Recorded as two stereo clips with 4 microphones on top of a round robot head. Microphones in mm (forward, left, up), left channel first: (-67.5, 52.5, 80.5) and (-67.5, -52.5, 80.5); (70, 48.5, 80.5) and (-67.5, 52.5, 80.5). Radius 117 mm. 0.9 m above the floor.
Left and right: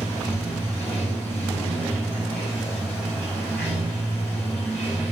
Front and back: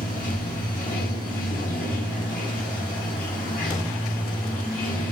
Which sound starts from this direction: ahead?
Running water, at 0.0 s.